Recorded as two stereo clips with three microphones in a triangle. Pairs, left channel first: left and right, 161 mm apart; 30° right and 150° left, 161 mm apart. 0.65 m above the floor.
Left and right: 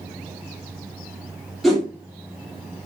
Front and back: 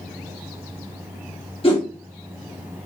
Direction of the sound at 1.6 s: Straight ahead.